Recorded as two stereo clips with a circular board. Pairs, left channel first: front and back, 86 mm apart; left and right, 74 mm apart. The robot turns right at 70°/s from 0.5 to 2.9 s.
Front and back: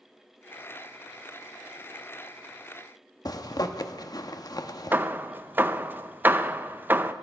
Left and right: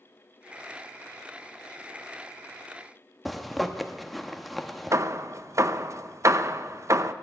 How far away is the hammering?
About 0.5 m.